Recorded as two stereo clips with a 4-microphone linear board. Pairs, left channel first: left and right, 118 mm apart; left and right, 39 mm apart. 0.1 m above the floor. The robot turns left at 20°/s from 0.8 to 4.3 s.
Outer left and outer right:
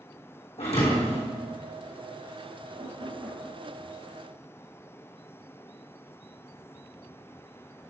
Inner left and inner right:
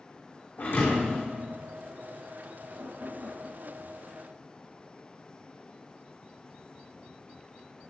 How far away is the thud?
About 3 m.